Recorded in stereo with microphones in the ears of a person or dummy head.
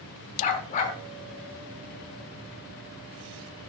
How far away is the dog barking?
About 1.3 m.